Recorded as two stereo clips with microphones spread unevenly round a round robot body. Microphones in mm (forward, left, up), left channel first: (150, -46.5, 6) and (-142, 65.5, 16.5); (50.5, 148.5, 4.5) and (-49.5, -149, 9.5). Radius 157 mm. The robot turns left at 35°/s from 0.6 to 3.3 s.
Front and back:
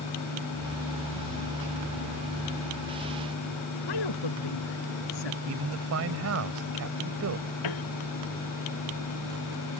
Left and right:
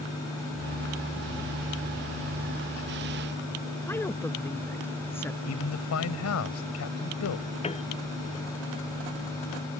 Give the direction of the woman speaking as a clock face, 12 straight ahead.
12 o'clock.